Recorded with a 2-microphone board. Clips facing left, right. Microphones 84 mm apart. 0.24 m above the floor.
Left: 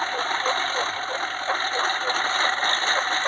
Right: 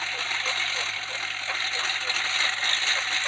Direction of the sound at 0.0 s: 40° left (ahead or behind).